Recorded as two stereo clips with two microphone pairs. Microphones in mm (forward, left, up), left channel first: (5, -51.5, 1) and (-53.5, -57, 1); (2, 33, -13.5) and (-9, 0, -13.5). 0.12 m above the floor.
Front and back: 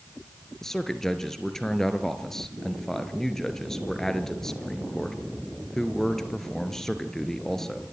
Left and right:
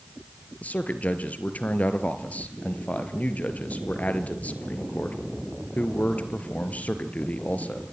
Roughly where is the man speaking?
Left.